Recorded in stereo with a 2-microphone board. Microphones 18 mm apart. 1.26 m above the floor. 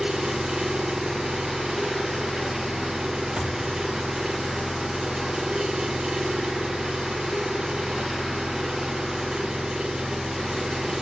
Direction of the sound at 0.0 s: 70° right (ahead or behind).